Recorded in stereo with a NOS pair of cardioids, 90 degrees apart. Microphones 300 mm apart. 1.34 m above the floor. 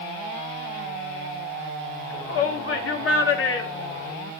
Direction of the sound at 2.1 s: 45° left.